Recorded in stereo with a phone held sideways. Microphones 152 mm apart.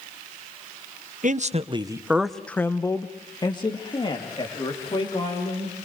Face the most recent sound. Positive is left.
turn(degrees=40)  # may be behind; listen again after turning